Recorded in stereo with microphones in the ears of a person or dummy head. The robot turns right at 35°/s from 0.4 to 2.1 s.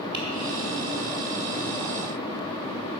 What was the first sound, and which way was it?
Tapping, 25° right (ahead or behind).